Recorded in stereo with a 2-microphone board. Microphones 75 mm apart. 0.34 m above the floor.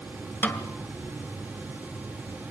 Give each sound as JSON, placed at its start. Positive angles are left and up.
{"t": 0.4, "sound": "a snare drum", "side_deg": 25, "distance_m": 1.5}